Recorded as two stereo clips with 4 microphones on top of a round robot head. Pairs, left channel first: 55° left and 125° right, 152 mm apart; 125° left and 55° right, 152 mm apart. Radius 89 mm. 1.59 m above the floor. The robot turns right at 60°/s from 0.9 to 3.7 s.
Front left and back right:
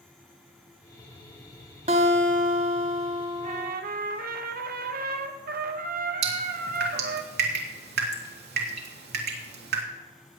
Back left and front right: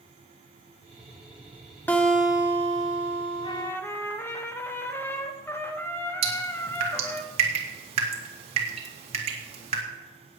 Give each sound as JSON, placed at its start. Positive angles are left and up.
{"t": 1.9, "sound": "a guitar", "azimuth_deg": -160, "distance_m": 1.2}
{"t": 3.4, "sound": "a trumpet", "azimuth_deg": -175, "distance_m": 1.1}
{"t": 6.2, "sound": "dripping", "azimuth_deg": -110, "distance_m": 2.5}